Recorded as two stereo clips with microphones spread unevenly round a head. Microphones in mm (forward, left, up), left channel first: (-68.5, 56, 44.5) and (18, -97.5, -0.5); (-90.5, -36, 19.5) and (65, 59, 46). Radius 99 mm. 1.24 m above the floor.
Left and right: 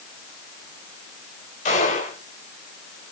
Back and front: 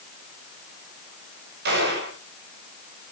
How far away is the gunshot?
About 5.5 m.